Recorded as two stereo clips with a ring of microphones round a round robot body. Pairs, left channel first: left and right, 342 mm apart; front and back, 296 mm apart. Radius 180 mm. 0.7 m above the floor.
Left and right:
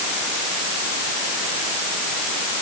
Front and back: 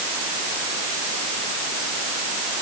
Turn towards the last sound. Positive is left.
No sound to turn to.